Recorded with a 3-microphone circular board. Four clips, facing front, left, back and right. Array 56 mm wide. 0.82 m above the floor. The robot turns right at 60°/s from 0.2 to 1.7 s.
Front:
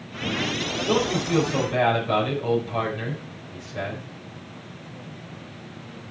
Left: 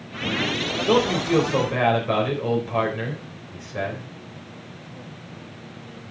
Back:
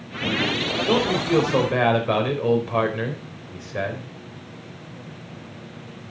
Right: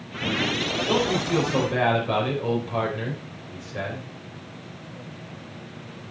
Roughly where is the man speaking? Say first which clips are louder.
Left 5 dB, back 2 dB; behind left.